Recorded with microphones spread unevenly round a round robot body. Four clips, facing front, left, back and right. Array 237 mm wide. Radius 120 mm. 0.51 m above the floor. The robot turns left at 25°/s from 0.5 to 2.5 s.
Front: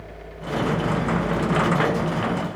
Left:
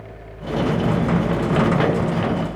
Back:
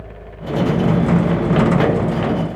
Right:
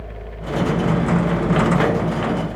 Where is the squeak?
I don't hear a squeak.